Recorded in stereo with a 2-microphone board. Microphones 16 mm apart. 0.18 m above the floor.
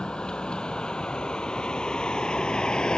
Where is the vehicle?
80° left; by 3.0 s 70° left (ahead or behind).